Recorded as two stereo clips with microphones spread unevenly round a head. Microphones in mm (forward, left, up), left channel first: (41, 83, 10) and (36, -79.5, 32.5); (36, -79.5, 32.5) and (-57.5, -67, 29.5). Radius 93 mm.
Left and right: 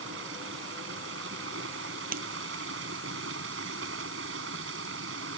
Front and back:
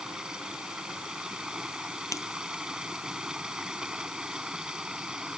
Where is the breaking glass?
60° right.